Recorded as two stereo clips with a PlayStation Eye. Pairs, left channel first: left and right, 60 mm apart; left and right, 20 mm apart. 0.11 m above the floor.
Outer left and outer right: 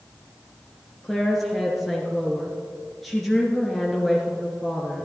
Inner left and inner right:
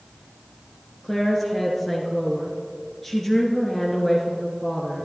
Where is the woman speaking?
5° left (ahead or behind), 1.5 m.